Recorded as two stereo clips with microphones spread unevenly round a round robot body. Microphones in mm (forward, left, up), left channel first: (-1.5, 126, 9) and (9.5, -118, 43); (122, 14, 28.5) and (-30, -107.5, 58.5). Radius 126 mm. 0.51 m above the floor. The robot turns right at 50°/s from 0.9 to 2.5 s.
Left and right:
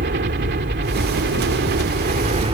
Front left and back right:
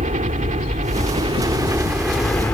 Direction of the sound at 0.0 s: 110° right.